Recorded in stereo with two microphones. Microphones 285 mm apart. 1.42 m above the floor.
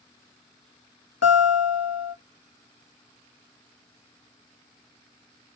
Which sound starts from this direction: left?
A guitar, at 1.2 s.